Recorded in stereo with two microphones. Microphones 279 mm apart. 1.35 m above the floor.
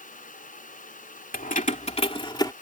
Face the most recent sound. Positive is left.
turn(degrees=15)  # may be behind; listen again after turning